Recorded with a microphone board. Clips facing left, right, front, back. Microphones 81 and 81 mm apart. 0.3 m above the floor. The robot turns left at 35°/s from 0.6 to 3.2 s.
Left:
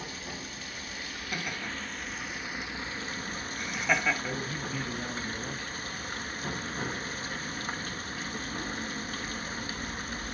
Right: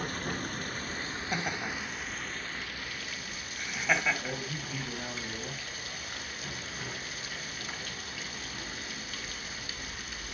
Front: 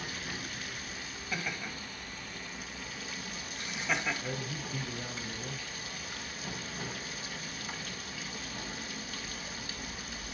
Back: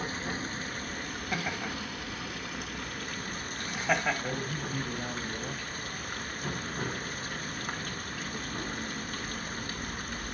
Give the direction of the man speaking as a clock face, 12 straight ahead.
6 o'clock.